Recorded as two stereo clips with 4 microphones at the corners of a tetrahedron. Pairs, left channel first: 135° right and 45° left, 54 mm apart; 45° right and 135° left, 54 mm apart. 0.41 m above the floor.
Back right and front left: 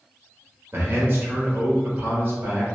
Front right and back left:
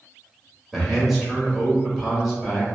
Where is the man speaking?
50° left, 1.3 m.